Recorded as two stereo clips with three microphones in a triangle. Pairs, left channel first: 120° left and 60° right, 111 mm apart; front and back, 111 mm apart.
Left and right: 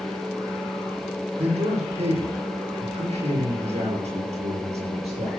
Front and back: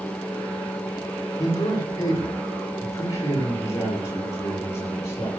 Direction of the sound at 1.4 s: 55° right.